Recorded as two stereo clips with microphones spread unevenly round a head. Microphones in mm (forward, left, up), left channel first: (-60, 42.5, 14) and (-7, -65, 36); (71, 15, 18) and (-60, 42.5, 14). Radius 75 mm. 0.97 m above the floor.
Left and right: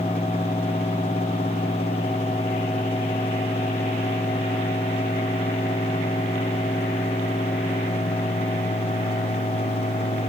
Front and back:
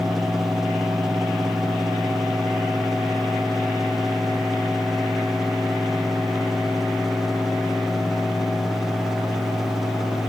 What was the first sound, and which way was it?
Only background noise.